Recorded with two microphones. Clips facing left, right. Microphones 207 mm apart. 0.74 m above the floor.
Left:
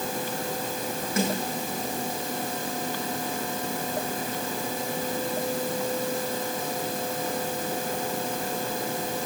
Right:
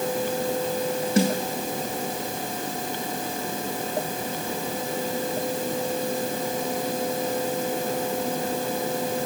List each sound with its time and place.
1.2 s a snare drum: 30° right (ahead or behind), 9 m